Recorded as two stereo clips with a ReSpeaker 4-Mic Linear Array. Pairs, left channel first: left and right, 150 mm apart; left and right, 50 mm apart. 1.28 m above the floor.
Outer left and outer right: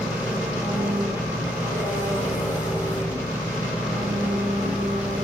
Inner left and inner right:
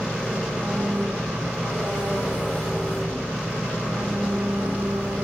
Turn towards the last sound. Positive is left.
turn(degrees=-10)  # may be behind; listen again after turning